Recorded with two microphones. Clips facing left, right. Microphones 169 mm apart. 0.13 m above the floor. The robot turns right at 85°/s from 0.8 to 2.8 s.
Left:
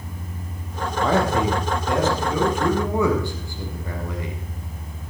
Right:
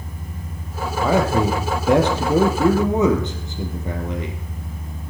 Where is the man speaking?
175° right, 3 m; by 4.4 s 25° right, 3 m.